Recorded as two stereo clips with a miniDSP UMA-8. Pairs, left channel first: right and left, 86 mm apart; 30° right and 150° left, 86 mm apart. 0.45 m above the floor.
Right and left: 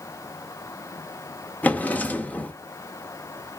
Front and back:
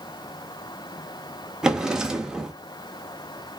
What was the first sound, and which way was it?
A drawer, 140° right.